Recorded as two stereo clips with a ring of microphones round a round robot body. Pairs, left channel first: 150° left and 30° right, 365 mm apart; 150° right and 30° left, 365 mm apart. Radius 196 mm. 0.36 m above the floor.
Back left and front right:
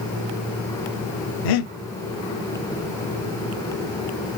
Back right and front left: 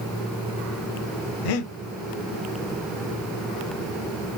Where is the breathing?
Straight behind, 0.7 m.